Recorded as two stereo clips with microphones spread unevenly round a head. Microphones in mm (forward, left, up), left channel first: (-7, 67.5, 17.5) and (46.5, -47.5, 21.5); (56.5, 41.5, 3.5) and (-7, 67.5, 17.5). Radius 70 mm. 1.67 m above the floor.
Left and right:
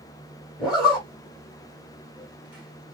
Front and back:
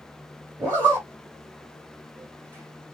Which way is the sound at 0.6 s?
150° right.